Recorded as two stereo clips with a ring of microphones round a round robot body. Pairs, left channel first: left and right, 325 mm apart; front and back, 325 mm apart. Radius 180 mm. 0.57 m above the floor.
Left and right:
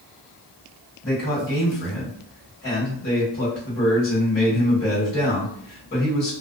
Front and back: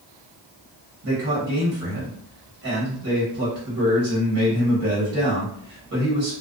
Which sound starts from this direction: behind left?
A man speaking, at 1.0 s.